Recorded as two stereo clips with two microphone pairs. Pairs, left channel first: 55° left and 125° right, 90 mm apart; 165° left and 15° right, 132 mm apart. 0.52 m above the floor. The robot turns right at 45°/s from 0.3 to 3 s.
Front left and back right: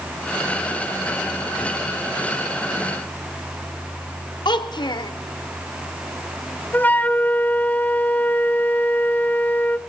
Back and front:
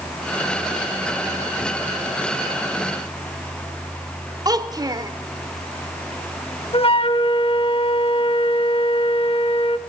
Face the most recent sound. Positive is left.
turn(degrees=125)